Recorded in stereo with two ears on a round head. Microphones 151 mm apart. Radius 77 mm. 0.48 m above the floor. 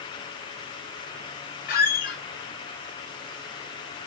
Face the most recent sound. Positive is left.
turn(degrees=55)  # may be behind; listen again after turning